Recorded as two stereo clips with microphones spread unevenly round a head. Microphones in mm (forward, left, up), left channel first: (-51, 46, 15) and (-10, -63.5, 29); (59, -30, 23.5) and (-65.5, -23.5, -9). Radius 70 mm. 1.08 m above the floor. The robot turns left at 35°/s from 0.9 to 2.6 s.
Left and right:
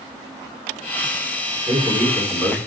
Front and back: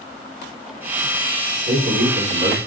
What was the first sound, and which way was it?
A man speaking, 135° right.